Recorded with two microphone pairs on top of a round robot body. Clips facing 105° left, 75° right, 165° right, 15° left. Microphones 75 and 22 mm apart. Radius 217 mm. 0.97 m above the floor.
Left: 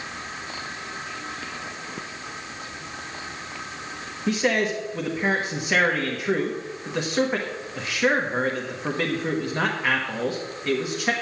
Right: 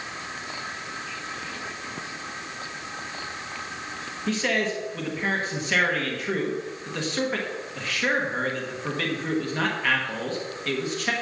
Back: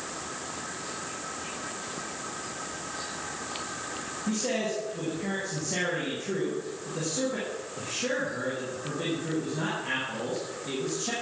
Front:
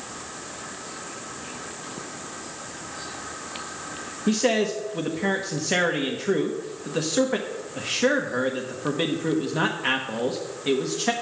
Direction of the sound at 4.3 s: 30° left.